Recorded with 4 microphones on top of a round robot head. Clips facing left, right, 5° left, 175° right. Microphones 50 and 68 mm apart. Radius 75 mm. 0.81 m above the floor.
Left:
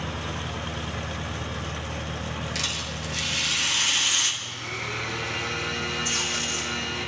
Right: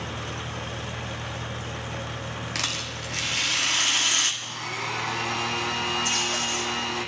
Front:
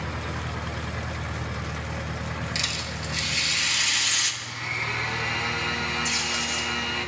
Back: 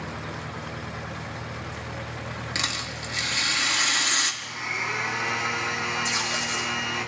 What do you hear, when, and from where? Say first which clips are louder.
2.5 s a rattle: even, back 1 dB; 130° right, 1.7 m
4.4 s a blender: right 1 dB, back 1 dB; 100° right, 1.1 m
6.0 s tape being pulled: right 2 dB, back 1 dB; 120° right, 4.5 m